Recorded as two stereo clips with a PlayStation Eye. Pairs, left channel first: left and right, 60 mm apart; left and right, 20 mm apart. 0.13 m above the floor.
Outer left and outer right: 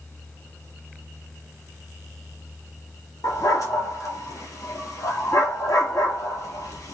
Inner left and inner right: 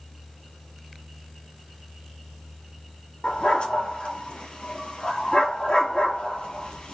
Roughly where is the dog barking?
Left.